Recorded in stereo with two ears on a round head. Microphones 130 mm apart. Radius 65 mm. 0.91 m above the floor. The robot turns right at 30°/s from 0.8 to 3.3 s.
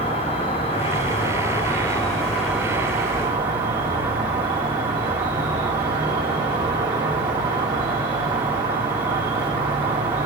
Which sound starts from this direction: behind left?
An insect, at 0.0 s.